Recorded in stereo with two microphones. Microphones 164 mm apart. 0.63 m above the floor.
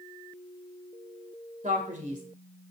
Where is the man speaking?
50° right (ahead or behind), 2 m.